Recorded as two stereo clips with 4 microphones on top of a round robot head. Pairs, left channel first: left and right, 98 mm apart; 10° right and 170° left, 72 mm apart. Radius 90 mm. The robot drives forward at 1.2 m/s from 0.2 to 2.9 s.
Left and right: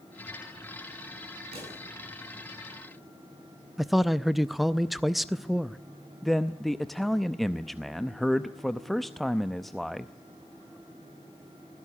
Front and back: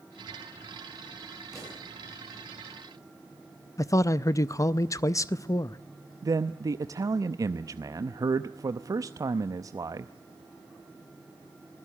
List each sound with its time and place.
1.5 s a pop: 105° right, 9 m
3.8 s a man speaking: straight ahead, 0.5 m
6.2 s a man speaking: straight behind, 0.7 m